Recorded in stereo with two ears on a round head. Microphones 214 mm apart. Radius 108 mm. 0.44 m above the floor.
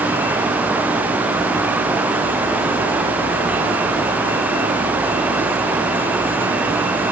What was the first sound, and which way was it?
Only background noise.